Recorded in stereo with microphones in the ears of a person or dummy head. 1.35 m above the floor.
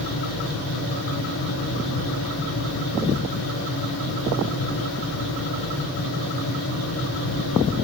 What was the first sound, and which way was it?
A fan, 65° left (ahead or behind).